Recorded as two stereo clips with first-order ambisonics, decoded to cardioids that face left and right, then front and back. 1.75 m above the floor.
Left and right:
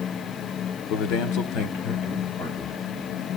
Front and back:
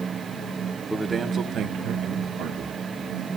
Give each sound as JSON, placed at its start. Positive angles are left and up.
{"t": 0.9, "sound": "a man speaking", "azimuth_deg": 90, "distance_m": 1.0}